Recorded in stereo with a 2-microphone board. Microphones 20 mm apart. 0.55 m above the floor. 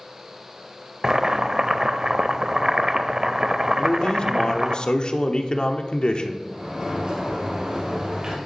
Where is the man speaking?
50° left (ahead or behind), 0.9 m.